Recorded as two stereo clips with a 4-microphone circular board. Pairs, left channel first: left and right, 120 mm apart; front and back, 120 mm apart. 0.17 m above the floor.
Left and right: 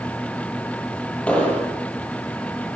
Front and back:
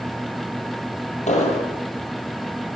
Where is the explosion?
10° left, 5 m.